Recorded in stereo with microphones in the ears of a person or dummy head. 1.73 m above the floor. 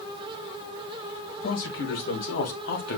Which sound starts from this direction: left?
A man speaking, at 1.4 s.